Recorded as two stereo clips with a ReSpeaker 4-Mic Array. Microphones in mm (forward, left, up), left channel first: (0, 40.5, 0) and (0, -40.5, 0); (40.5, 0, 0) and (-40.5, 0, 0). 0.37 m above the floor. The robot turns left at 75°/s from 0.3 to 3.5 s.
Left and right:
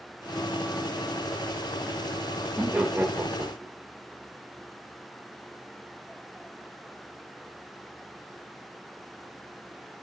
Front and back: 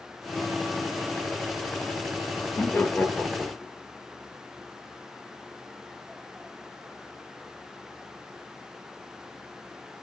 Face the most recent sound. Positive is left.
turn(degrees=-90)